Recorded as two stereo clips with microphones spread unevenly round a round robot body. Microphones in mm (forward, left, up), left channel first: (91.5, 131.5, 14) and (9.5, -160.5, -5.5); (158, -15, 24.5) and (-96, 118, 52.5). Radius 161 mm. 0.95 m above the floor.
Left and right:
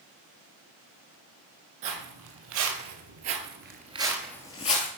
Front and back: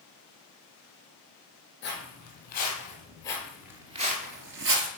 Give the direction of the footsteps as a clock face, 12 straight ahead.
3 o'clock.